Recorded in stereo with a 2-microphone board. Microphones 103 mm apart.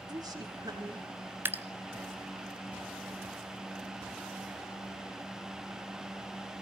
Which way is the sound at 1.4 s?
20° right (ahead or behind).